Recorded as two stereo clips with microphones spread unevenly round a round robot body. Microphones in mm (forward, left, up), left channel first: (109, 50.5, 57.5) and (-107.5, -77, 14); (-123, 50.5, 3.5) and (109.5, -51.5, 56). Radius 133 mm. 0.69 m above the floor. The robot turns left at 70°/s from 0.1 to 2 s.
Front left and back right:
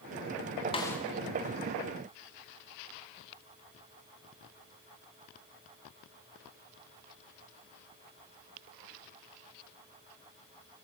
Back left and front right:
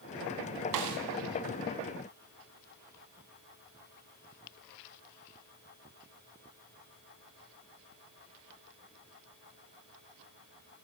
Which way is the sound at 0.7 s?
40° right.